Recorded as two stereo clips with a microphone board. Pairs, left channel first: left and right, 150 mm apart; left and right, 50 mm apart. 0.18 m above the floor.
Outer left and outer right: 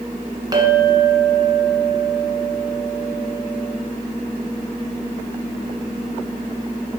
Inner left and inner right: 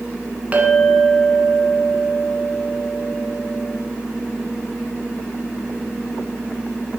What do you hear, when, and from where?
0.5 s a clink: 25° right (ahead or behind), 1.5 m